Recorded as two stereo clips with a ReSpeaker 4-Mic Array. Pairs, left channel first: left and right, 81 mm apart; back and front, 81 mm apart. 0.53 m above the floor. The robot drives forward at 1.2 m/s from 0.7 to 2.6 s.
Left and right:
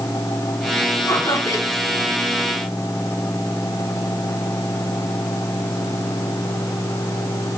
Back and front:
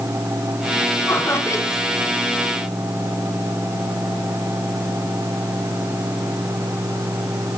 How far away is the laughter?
About 1.8 m.